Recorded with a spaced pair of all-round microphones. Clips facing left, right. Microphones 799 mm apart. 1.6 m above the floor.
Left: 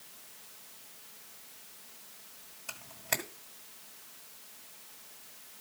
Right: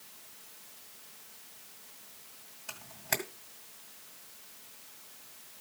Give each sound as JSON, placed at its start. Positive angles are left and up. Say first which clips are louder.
{"t": 2.7, "sound": "a camera shutter", "louder": "right 1 dB", "side_deg": 5, "distance_m": 1.6}